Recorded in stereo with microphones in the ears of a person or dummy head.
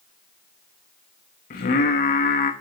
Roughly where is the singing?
Left.